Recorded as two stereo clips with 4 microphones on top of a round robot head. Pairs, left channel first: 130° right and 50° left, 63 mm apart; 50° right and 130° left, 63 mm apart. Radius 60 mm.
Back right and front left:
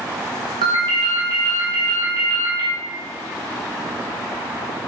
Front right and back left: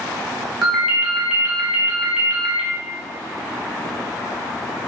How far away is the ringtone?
About 0.8 m.